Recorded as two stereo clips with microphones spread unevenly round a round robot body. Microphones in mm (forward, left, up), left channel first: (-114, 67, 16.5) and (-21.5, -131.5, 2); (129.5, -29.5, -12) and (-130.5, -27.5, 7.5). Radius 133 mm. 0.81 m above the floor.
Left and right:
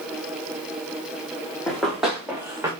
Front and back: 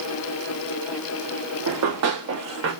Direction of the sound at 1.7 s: 160° right.